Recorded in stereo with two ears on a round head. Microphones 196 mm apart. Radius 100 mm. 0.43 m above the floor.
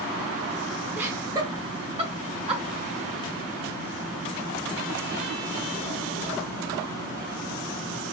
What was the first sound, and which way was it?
Laughter, 10° right (ahead or behind).